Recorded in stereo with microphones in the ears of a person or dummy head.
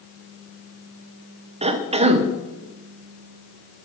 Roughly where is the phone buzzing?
No phone buzzing in this recording.